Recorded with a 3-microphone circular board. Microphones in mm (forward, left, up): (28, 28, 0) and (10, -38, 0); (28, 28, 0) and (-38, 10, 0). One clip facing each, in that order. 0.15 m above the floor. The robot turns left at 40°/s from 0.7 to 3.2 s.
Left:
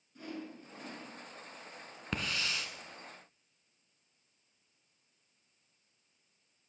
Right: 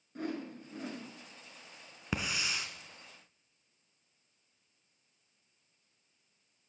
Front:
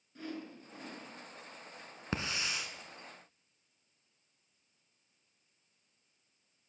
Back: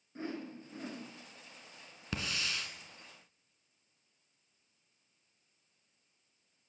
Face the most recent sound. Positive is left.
turn(degrees=-70)